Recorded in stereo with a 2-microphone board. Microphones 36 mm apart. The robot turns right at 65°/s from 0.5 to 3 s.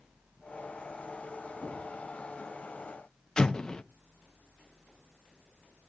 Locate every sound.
1.6 s knocking: 15° left (ahead or behind), 8 m; by 1.9 s centre (ahead or behind), 8 m
3.4 s an explosion: 30° left (ahead or behind), 0.5 m